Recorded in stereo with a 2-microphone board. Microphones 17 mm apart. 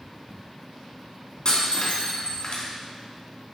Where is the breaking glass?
55° left (ahead or behind), 3 m.